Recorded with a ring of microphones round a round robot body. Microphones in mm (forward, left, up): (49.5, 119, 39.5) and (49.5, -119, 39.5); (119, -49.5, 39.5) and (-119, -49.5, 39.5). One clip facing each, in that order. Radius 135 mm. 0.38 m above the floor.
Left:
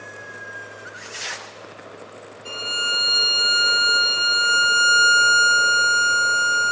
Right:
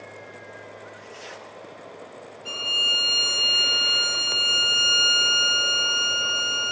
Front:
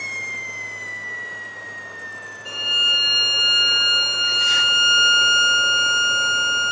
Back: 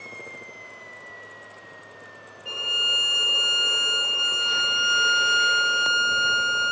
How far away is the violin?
About 3 m.